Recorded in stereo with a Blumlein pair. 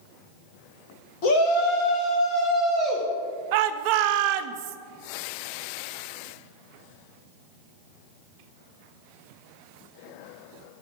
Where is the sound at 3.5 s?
45° right, 0.7 m.